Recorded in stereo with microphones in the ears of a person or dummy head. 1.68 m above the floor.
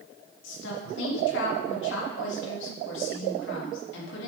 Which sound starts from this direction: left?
A woman speaking, at 0.4 s.